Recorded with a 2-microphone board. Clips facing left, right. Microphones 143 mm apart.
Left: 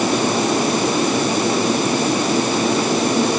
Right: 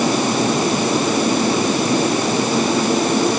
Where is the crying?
No crying in this recording.